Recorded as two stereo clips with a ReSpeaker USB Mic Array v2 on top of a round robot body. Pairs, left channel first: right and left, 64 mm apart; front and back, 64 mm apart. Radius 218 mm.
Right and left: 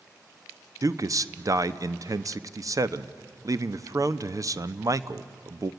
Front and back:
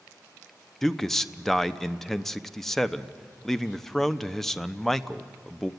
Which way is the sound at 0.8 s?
85° left.